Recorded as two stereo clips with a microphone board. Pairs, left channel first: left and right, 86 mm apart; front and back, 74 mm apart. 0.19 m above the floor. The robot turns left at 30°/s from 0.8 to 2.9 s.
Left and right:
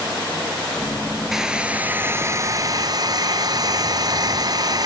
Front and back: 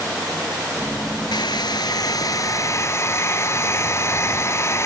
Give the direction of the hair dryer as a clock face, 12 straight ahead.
12 o'clock.